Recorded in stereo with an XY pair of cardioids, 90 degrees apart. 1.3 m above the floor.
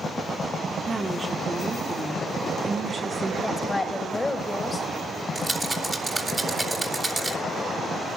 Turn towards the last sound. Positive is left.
turn(degrees=-20)